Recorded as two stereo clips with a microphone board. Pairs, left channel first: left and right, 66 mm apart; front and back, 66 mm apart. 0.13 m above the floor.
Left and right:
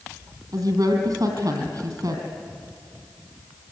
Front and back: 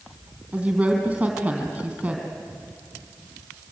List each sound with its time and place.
0.5 s a woman speaking: 105° right, 3.5 m